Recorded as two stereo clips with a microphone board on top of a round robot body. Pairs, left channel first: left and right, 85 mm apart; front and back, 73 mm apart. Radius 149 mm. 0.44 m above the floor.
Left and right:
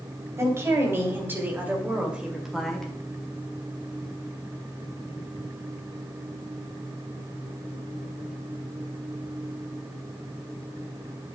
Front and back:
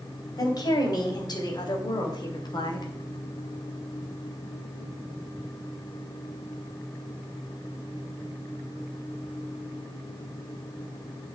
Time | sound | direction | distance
0.4 | a woman speaking | 30° right | 3.5 m